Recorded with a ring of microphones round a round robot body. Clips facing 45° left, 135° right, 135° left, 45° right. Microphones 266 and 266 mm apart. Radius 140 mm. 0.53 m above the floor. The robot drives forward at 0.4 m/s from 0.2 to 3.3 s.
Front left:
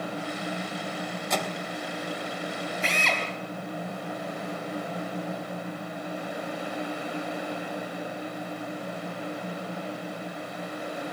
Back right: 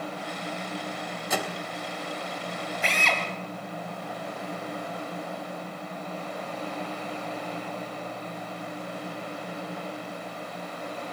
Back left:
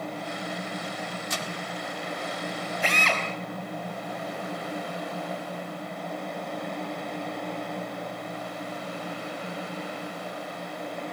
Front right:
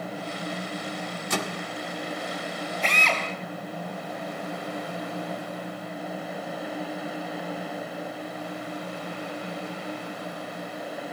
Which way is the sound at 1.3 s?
50° right.